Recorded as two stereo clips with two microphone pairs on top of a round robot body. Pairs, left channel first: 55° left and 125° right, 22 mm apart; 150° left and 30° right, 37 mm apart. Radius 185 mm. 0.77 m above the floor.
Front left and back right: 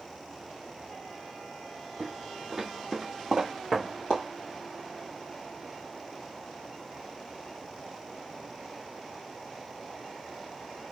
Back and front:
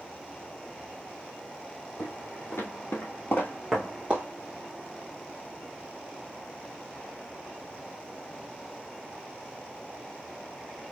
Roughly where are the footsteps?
Behind left.